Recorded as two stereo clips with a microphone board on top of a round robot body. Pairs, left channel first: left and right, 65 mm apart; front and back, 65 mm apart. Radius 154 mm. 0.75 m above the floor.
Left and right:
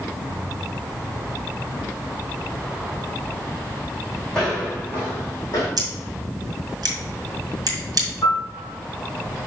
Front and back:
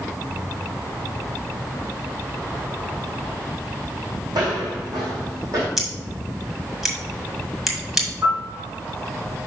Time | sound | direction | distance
4.3 | footsteps | 170° left | 2.5 m
5.8 | scissors | 95° right | 1.9 m
8.2 | a piano | 145° left | 3 m